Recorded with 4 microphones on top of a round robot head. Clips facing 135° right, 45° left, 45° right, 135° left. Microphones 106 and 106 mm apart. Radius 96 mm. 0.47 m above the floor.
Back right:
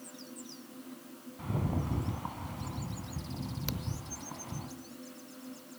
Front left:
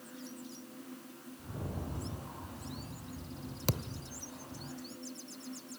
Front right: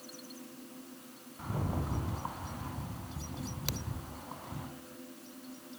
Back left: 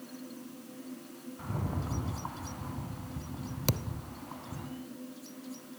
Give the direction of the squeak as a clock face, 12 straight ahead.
I don't hear a squeak.